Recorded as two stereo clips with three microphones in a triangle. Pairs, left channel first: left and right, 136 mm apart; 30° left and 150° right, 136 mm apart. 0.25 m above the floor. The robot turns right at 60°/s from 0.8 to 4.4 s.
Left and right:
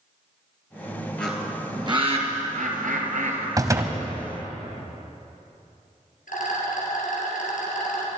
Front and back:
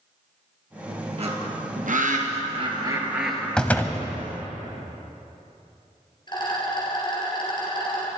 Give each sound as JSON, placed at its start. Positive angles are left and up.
{"t": 1.2, "sound": "a bird", "azimuth_deg": 170, "distance_m": 2.0}
{"t": 3.6, "sound": "a door slam", "azimuth_deg": -50, "distance_m": 1.1}
{"t": 6.3, "sound": "a rattle", "azimuth_deg": 85, "distance_m": 3.5}